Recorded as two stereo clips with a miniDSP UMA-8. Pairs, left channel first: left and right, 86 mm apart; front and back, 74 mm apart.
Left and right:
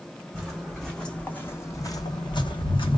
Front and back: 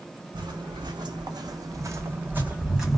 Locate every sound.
0.3 s footsteps: 175° right, 1.1 m; by 3.0 s 90° left, 0.8 m